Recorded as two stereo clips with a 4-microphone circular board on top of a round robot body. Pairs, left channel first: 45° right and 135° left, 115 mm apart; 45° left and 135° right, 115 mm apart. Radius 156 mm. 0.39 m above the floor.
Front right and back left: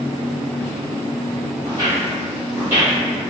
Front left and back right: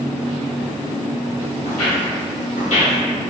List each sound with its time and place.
1.6 s footsteps: 20° left, 0.9 m; by 3.0 s 70° left, 1.1 m